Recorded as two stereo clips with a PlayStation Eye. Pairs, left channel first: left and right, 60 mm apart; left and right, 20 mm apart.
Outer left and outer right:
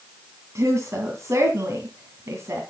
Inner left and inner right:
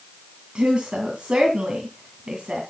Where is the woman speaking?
50° right (ahead or behind), 2.5 m.